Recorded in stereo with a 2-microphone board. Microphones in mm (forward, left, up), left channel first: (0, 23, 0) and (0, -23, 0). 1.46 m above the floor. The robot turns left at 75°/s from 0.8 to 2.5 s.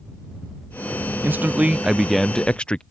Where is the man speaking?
115° right; by 2.8 s 150° left.